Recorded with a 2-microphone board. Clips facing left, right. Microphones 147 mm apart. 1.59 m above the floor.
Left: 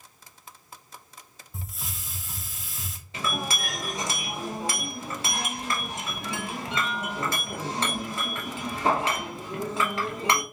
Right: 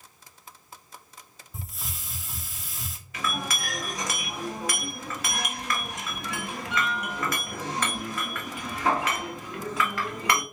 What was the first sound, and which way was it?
A hiss, centre (ahead or behind).